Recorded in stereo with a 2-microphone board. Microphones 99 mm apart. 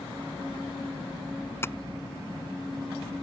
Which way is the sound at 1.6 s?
25° left (ahead or behind).